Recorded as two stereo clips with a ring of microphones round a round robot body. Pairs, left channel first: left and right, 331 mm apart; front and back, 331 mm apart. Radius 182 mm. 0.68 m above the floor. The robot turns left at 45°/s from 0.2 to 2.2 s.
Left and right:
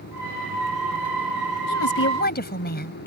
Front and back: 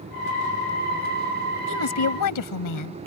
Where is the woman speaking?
50° left; by 3.0 s 30° left.